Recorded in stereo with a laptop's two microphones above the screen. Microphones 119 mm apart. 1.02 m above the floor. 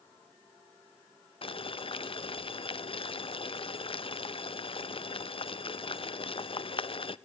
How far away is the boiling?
About 0.5 m.